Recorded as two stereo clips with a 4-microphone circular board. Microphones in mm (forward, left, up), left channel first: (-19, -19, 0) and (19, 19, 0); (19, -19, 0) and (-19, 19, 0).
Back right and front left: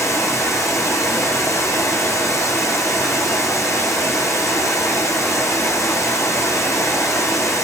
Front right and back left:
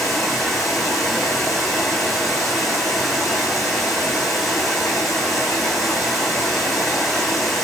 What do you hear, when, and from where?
0.0 s running water: 130° right, 2.5 m